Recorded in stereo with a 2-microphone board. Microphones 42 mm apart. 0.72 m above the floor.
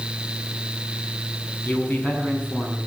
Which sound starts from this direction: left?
A man speaking, at 1.6 s.